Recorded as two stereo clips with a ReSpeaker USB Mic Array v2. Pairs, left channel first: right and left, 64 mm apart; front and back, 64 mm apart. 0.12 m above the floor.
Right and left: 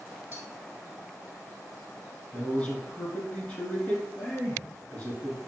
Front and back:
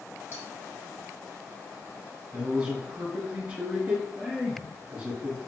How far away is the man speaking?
About 1.5 m.